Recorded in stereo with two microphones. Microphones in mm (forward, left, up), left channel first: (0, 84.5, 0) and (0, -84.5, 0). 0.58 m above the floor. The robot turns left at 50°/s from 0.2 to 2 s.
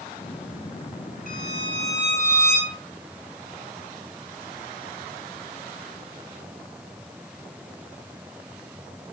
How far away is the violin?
About 7 m.